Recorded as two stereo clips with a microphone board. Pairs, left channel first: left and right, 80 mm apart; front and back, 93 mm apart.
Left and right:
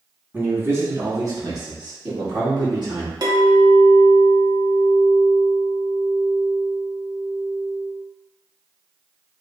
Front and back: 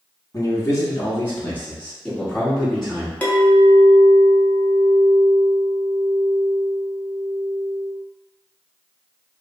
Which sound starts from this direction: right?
A clink, at 3.2 s.